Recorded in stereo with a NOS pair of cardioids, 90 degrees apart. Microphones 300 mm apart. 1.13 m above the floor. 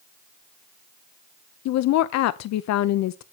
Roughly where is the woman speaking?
Ahead left.